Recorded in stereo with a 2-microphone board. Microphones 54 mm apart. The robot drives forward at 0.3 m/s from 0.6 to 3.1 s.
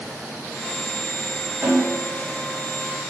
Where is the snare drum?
30° right (ahead or behind), 1.9 m.